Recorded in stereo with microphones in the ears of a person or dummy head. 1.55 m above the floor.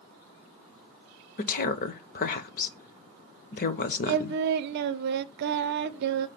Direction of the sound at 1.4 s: 55° left (ahead or behind).